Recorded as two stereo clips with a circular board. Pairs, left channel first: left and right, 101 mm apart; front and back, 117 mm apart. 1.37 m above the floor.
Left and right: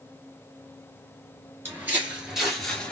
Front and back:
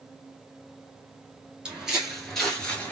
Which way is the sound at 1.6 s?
110° right.